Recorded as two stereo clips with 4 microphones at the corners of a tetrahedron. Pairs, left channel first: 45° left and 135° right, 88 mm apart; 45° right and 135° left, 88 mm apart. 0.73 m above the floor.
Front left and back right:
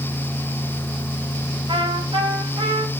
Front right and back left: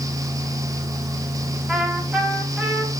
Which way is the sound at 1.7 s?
150° right.